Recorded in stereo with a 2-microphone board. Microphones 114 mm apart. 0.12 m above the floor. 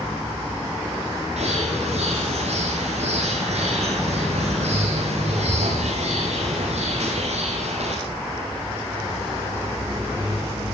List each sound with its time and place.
1.4 s a bird: 75° right (ahead or behind), 8 m